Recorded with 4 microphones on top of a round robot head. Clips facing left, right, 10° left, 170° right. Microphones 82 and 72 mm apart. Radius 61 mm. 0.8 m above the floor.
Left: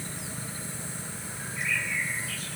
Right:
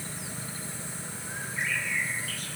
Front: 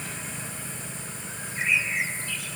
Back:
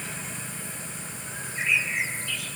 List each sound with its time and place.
1.3 s a bird: 135° right, 7 m